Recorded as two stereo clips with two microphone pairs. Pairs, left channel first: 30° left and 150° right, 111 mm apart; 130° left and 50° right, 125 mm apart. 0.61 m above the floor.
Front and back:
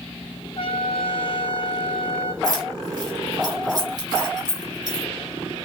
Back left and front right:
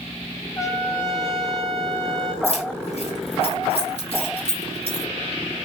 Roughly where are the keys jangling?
Behind.